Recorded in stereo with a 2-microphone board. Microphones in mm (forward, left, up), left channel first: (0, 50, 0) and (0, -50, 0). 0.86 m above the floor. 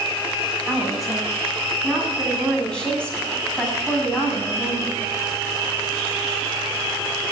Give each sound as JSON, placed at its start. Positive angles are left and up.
{"t": 0.7, "sound": "a woman speaking", "side_deg": 0, "distance_m": 7.0}